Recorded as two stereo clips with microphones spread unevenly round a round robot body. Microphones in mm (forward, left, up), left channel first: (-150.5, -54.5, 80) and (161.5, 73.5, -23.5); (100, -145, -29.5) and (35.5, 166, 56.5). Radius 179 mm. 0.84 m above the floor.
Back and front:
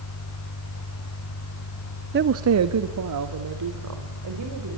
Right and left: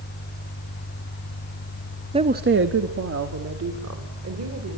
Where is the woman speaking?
15° left, 0.7 m; by 4.8 s 60° left, 4 m.